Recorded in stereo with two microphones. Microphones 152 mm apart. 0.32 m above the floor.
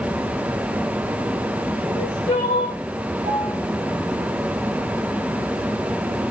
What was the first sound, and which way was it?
Crying, 30° left (ahead or behind).